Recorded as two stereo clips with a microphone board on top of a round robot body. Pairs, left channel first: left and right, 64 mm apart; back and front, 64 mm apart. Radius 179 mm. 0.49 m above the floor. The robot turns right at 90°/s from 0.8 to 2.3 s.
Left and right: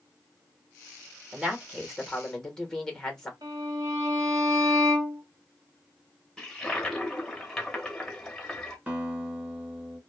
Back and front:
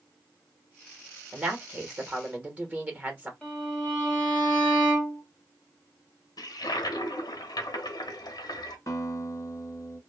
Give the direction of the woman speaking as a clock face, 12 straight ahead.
2 o'clock.